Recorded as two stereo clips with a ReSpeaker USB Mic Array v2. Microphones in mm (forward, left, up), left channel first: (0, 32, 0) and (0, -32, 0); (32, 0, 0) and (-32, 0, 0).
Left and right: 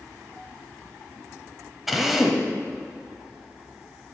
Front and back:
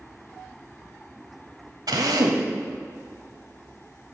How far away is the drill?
About 1.0 m.